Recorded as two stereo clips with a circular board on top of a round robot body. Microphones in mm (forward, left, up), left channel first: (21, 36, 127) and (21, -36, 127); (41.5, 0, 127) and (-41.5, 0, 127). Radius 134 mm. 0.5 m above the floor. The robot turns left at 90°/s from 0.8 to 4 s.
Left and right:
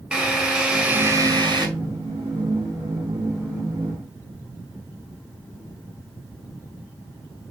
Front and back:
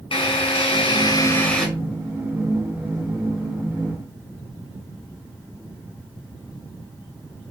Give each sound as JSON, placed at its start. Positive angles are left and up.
{"t": 0.1, "sound": "a drill", "azimuth_deg": -10, "distance_m": 4.5}